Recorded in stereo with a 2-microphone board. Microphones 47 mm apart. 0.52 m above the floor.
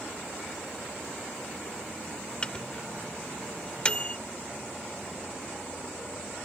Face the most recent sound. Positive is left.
turn(degrees=20)  # may be behind; listen again after turning